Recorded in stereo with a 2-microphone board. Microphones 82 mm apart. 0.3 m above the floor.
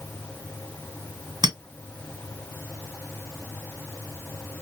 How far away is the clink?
About 1.7 m.